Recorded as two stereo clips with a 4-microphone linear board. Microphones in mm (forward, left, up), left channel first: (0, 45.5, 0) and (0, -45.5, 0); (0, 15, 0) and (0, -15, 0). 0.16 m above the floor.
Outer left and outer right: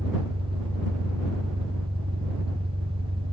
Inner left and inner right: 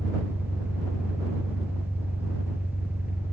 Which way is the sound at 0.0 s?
75° right (ahead or behind).